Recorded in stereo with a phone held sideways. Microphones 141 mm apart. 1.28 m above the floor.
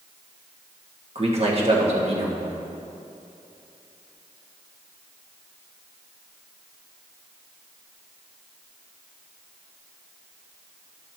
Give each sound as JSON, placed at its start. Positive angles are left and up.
{"t": 1.1, "sound": "a man speaking", "side_deg": -45, "distance_m": 1.6}